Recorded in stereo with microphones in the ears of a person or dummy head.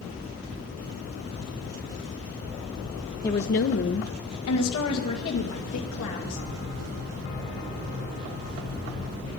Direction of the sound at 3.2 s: 20° left (ahead or behind).